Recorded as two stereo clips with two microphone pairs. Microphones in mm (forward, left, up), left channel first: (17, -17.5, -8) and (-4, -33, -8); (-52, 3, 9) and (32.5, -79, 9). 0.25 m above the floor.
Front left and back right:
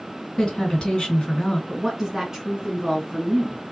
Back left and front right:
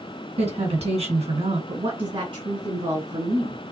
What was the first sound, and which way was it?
A woman speaking, 20° right.